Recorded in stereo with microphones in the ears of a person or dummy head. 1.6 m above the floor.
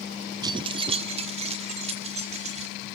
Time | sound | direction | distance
0.4 | keys jangling | 25° right (ahead or behind) | 0.8 m